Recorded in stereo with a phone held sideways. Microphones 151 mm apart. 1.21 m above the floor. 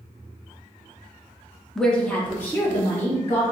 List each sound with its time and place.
1.8 s a woman speaking: centre (ahead or behind), 0.7 m; by 3.4 s 15° left (ahead or behind), 2 m